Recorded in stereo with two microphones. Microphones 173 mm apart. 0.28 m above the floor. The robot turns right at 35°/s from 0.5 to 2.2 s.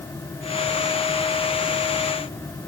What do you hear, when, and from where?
Only background noise.